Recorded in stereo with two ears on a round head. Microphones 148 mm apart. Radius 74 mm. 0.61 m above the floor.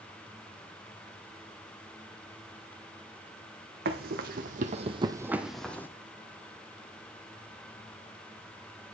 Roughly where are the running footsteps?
Right.